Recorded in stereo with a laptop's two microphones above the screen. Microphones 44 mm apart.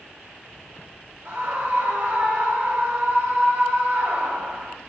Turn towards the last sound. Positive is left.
turn(degrees=-70)  # may be behind; listen again after turning